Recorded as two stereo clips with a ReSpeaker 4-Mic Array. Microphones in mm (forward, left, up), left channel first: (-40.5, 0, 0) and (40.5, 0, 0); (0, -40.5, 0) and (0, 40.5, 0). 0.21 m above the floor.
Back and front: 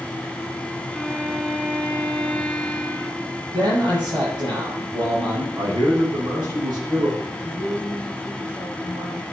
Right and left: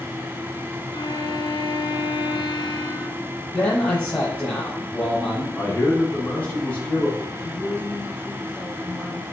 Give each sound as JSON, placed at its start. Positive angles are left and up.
{"t": 0.9, "sound": "a violin", "azimuth_deg": -100, "distance_m": 2.5}
{"t": 3.5, "sound": "a man speaking", "azimuth_deg": -20, "distance_m": 6.0}
{"t": 5.5, "sound": "a man speaking", "azimuth_deg": -25, "distance_m": 6.0}
{"t": 7.3, "sound": "a woman speaking", "azimuth_deg": -15, "distance_m": 2.5}